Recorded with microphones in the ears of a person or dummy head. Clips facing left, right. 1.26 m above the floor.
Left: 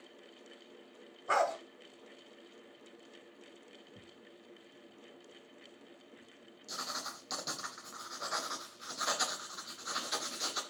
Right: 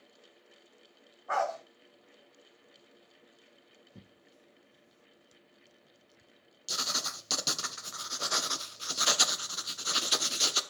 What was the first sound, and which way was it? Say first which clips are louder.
A dog barking: even; 40° left (ahead or behind).